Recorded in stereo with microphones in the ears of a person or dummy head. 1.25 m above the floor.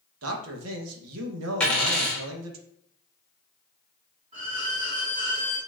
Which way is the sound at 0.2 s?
85° right.